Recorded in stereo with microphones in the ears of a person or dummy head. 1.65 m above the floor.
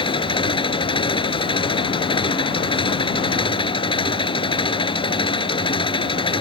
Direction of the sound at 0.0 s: 25° left (ahead or behind).